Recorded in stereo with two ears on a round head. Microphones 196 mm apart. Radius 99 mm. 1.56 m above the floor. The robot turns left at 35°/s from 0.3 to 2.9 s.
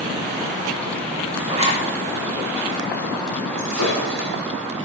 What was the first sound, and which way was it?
A zipper, 20° right (ahead or behind).